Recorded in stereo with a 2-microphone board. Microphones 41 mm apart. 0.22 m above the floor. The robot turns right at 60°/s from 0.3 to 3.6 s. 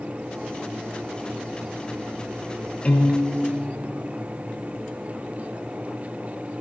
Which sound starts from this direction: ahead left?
A piano, at 2.9 s.